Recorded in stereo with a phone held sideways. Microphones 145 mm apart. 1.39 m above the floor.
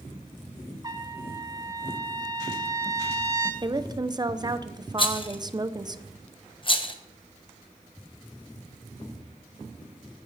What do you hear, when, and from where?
0.8 s a trumpet: 25° right (ahead or behind), 1.5 m
3.6 s a woman speaking: 30° right (ahead or behind), 0.7 m
5.0 s a rattle: 35° left (ahead or behind), 1.0 m